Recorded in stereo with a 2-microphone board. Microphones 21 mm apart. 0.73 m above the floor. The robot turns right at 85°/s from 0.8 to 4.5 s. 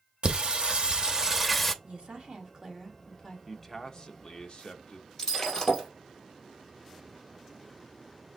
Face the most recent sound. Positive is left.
turn(degrees=15)  # may be behind; listen again after turning